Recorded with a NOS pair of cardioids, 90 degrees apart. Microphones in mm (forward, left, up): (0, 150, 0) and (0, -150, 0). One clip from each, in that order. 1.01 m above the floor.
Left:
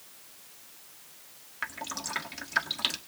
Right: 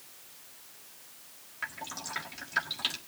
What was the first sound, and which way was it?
Dripping, 30° left.